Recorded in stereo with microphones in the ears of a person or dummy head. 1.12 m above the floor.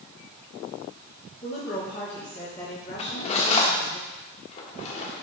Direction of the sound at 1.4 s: 20° left (ahead or behind).